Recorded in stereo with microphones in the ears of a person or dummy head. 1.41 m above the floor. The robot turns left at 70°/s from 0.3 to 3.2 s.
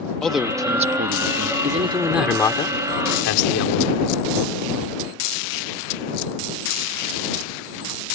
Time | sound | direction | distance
0.2 | a man speaking | straight ahead | ?
1.6 | a man speaking | 140° right | ?